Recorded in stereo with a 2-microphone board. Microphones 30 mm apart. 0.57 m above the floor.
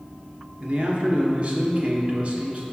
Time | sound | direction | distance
0.6 | a man speaking | 45° right (ahead or behind) | 1.1 m